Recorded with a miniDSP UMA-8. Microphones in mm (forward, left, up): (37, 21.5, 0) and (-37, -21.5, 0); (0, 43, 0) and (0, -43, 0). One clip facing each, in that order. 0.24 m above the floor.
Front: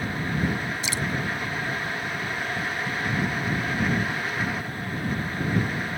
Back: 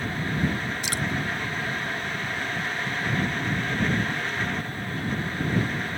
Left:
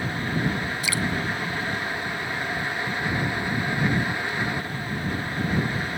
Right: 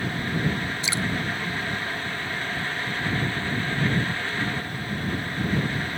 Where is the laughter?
No laughter in this recording.